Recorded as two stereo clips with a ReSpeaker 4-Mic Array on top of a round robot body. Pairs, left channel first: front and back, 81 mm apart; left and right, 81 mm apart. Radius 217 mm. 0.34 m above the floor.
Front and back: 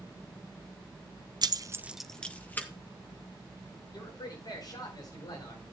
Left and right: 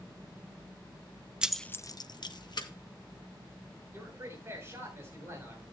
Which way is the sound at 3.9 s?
30° right.